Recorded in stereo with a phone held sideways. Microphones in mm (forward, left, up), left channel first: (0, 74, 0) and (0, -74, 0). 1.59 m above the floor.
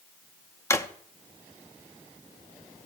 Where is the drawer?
20° left (ahead or behind), 0.7 m.